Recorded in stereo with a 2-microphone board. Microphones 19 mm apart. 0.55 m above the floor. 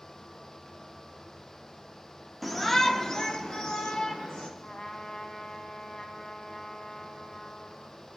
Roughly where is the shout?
Centre.